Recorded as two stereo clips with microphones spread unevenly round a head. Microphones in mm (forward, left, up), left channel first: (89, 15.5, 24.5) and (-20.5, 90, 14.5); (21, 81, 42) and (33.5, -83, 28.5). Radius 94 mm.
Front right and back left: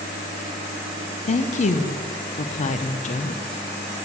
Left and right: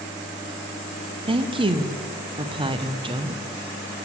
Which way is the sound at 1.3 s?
40° right.